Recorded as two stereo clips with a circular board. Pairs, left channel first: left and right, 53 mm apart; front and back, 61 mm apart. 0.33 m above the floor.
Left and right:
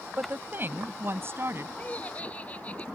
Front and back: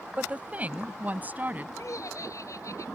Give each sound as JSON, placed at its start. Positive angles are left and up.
{"t": 0.2, "sound": "a woman speaking", "azimuth_deg": -125}
{"t": 1.8, "sound": "laughter", "azimuth_deg": 30}